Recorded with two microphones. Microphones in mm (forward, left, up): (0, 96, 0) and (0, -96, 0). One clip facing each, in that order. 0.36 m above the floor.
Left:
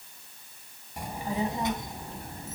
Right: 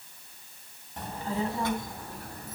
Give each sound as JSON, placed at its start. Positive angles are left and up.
{"t": 1.0, "sound": "a child speaking", "side_deg": 10, "distance_m": 1.8}